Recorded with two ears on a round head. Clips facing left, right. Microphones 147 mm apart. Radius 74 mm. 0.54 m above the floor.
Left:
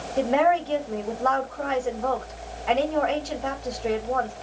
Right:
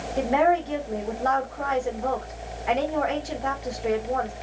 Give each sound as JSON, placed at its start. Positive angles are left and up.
{"t": 0.2, "sound": "a woman speaking", "side_deg": -15, "distance_m": 1.8}